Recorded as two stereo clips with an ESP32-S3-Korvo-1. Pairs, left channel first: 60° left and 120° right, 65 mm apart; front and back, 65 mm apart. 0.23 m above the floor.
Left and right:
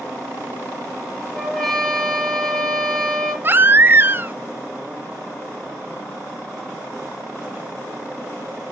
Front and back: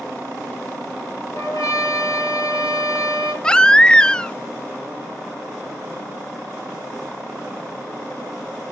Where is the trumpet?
25° right, 4 m.